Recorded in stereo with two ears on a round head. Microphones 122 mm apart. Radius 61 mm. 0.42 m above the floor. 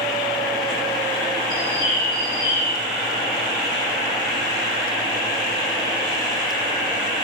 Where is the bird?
75° left (ahead or behind), 3 m.